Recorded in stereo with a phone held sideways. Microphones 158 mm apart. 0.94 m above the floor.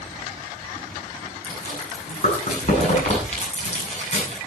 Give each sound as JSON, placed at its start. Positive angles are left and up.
{"t": 1.4, "sound": "chewing", "side_deg": 45, "distance_m": 9.0}